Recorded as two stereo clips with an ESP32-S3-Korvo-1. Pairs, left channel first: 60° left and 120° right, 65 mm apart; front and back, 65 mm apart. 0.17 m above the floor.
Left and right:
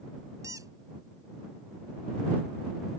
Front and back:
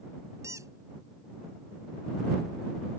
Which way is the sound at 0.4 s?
145° right.